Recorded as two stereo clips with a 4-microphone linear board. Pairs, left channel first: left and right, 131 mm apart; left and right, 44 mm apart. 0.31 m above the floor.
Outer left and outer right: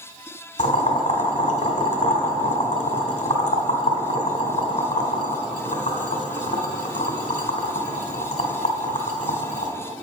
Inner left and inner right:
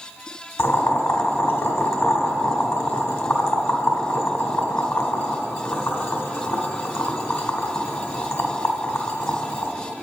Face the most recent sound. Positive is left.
turn(degrees=70)  # may be behind; listen again after turning